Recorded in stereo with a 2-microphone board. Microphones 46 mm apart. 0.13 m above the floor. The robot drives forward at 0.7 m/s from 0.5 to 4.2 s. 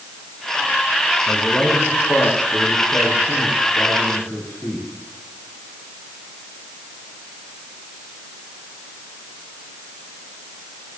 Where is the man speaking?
40° left (ahead or behind), 8.5 m; by 4.9 s 35° left (ahead or behind), 10.5 m.